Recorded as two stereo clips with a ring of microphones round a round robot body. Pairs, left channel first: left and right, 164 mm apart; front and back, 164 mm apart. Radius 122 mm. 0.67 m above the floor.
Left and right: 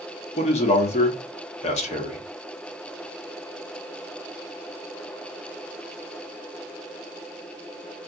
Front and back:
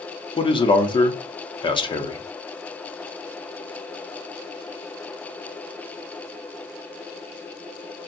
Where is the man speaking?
50° left, 0.9 m.